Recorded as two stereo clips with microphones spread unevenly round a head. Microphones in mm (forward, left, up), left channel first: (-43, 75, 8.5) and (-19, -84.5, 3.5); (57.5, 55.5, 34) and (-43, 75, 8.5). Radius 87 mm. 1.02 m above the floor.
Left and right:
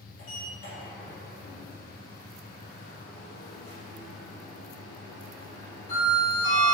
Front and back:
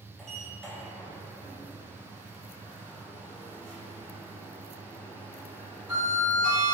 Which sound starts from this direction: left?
A sliding door, at 0.2 s.